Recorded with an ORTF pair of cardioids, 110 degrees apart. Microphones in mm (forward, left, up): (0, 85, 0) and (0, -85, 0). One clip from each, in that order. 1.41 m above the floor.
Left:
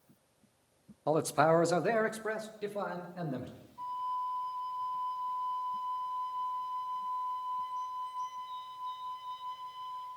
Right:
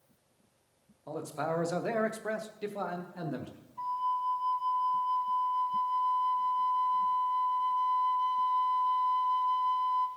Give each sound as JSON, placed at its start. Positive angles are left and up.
{"t": 1.1, "sound": "a man speaking", "azimuth_deg": 60, "distance_m": 0.6}
{"t": 3.8, "sound": "a flute", "azimuth_deg": -45, "distance_m": 1.1}